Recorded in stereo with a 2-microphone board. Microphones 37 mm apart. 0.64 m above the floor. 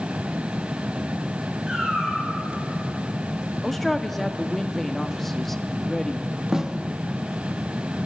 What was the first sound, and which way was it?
A cat meowing, 15° right (ahead or behind).